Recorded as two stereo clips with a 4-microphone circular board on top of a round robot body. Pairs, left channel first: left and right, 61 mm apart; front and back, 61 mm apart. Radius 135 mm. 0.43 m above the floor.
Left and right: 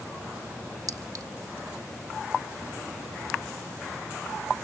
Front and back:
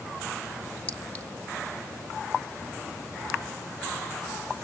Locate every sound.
0.9 s a clink: 70° right, 2.0 m